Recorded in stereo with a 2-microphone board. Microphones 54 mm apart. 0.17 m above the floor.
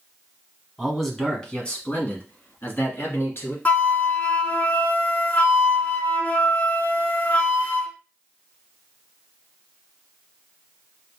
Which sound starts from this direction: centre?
A man speaking, at 0.8 s.